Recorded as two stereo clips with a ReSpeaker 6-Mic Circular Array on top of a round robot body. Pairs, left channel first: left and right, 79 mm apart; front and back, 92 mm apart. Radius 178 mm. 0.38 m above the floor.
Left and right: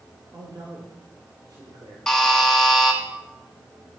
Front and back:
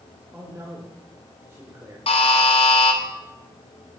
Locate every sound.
0.3 s a man speaking: 120° right, 2.5 m
2.1 s a buzzer: 5° left, 1.8 m